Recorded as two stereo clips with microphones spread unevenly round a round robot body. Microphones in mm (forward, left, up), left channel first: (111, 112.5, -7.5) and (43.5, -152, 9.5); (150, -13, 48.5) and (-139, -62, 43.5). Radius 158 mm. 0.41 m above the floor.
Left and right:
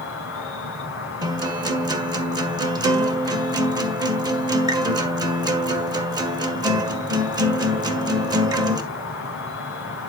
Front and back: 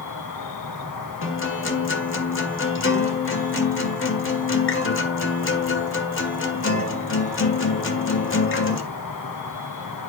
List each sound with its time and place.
0.0 s an insect: 35° left, 3 m
1.2 s a guitar: 30° right, 2.0 m